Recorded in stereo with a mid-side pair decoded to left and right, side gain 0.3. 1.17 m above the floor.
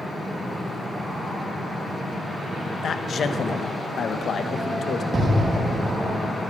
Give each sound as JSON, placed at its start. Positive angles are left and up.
{"t": 2.8, "sound": "a man speaking", "azimuth_deg": 70, "distance_m": 1.1}
{"t": 5.1, "sound": "an explosion", "azimuth_deg": -60, "distance_m": 2.5}